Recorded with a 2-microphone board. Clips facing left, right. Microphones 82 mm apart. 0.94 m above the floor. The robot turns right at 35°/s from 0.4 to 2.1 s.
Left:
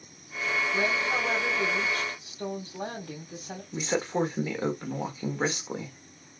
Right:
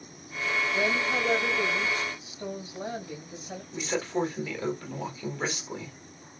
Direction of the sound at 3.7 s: 30° left (ahead or behind).